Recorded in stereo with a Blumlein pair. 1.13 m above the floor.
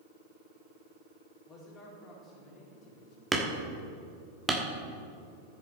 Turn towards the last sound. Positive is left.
turn(degrees=-10)